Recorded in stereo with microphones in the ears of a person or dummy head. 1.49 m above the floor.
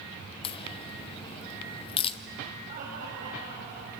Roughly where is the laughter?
Right.